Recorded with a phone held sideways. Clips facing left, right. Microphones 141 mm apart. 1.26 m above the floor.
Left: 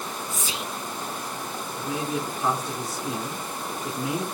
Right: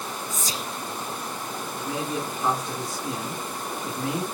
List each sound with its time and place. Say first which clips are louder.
0.3 s whispering: even; 40° right (ahead or behind), 0.6 m
1.8 s a man speaking: left 1 dB; 10° left (ahead or behind), 4 m